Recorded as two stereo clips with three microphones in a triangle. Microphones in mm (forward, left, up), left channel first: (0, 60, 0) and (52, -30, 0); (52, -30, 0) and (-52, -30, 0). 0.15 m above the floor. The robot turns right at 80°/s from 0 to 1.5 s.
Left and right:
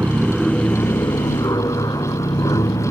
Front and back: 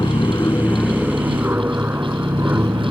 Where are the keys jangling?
No keys jangling in this recording.